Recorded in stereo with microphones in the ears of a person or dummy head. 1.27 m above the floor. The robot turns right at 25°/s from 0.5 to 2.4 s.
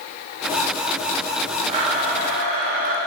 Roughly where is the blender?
Right.